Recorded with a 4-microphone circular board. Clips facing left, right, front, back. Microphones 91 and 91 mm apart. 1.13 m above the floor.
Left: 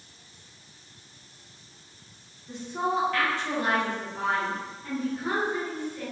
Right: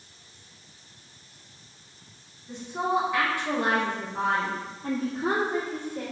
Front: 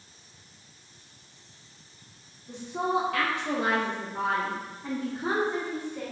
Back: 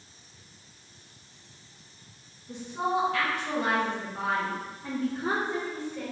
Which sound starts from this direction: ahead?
A woman speaking, at 2.5 s.